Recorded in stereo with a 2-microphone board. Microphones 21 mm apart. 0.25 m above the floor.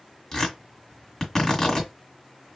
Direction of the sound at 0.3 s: 20° left (ahead or behind).